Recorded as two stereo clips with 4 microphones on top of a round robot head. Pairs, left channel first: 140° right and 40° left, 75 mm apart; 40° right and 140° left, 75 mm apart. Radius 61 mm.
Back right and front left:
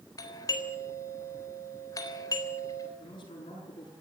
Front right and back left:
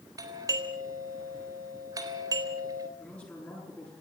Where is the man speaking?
115° right, 10 m.